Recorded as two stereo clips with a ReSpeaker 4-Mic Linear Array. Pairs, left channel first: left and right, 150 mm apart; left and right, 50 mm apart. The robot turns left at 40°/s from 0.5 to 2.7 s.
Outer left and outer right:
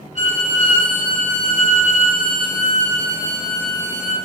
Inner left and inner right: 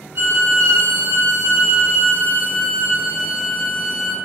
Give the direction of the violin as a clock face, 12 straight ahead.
2 o'clock.